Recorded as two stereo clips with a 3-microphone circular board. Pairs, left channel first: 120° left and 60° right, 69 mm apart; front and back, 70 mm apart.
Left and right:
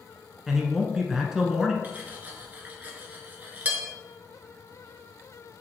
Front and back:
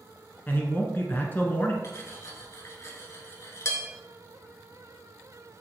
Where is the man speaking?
20° left, 1.2 m.